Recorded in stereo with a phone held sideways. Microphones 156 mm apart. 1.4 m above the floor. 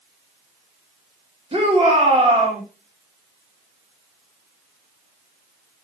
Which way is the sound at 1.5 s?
35° right (ahead or behind).